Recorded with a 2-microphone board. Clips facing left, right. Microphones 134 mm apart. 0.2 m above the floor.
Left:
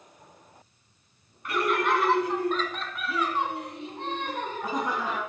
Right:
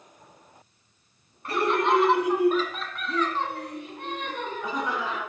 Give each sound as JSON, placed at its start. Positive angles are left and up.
{"t": 1.4, "sound": "laughter", "side_deg": -35, "distance_m": 1.5}